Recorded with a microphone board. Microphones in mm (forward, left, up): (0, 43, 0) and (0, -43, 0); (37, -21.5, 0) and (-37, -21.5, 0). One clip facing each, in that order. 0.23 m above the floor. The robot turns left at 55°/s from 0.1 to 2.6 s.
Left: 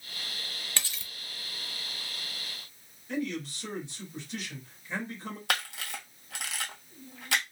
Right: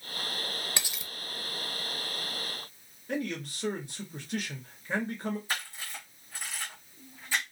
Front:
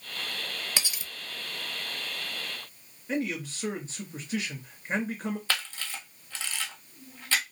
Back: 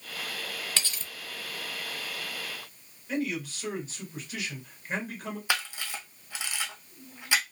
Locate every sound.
0.8 s cutlery clinking: 40° right, 0.5 m; by 1.1 s 60° right, 0.5 m
3.1 s a man speaking: 55° right, 2.5 m
5.5 s a camera shutter: 105° left, 1.3 m